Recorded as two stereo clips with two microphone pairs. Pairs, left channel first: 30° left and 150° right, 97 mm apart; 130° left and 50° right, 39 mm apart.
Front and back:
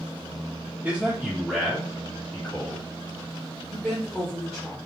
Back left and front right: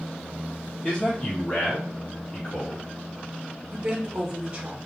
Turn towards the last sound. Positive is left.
turn(degrees=-50)